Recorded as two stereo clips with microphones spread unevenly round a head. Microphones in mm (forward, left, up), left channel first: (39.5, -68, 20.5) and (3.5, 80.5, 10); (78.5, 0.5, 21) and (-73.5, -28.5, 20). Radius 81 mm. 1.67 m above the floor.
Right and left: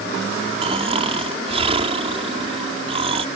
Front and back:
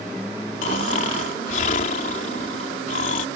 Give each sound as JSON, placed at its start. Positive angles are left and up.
{"t": 0.6, "sound": "snoring", "azimuth_deg": 55}